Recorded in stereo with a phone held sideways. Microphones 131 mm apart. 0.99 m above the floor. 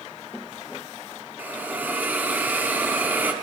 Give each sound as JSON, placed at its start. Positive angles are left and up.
{"t": 1.4, "sound": "a hiss", "side_deg": -10, "distance_m": 1.0}